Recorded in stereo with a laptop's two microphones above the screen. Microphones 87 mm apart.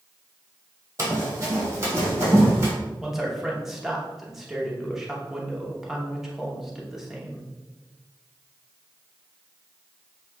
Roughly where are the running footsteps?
Right.